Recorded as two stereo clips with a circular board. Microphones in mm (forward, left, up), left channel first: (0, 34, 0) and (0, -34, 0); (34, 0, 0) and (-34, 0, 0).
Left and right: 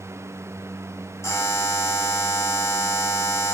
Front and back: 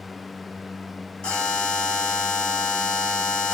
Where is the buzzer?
70° left, 2 m.